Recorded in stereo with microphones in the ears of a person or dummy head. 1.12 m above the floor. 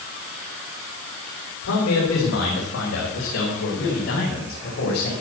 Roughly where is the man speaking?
Left.